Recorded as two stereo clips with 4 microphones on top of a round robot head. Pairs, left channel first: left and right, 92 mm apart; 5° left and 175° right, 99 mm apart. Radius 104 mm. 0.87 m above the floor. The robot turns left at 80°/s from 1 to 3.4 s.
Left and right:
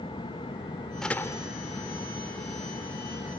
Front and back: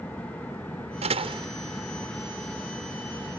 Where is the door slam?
175° left; by 1.5 s 140° left.